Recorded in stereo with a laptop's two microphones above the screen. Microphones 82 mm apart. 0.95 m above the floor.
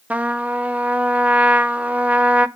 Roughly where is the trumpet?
Centre.